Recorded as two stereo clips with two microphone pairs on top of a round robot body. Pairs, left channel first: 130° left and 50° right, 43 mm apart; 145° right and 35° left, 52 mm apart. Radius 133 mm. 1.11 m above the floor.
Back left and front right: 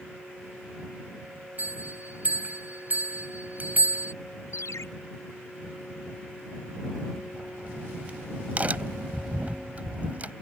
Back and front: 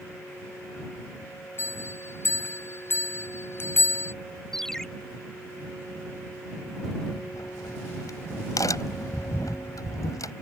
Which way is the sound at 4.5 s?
130° left.